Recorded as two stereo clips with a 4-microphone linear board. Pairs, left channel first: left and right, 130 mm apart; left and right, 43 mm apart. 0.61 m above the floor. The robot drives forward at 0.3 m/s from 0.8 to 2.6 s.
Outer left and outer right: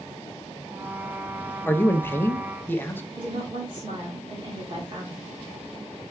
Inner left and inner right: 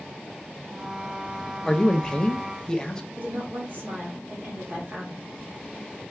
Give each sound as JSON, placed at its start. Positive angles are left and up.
{"t": 1.6, "sound": "a man speaking", "side_deg": 15, "distance_m": 0.5}
{"t": 3.2, "sound": "a woman speaking", "side_deg": -40, "distance_m": 1.5}